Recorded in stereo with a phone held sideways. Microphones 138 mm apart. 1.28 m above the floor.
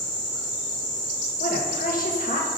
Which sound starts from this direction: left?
A woman speaking, at 1.4 s.